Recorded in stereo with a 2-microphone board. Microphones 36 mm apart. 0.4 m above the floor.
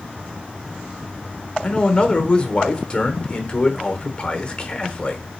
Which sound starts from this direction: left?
A man speaking, at 1.6 s.